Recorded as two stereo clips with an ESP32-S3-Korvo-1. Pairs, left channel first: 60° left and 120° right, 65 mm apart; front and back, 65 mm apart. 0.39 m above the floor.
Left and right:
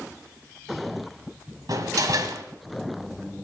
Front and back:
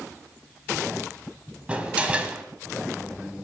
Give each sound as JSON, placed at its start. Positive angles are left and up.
{"t": 1.7, "sound": "a door slam", "azimuth_deg": -110, "distance_m": 1.7}